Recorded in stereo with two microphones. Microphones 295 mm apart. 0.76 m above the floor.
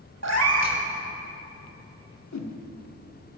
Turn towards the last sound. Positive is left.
turn(degrees=65)  # may be behind; listen again after turning